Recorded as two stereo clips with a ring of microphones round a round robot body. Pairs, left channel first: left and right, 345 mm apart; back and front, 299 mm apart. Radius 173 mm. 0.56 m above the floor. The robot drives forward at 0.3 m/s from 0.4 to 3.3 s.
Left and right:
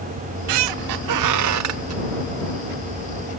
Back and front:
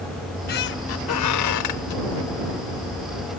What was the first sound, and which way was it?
A squeak, 110° right.